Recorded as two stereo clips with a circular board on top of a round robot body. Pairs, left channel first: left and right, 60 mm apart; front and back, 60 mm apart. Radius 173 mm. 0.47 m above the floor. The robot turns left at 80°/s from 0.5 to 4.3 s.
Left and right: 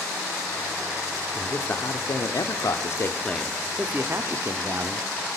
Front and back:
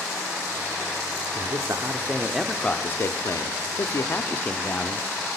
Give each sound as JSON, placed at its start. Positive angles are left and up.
{"t": 1.4, "sound": "a man speaking", "azimuth_deg": 175, "distance_m": 1.4}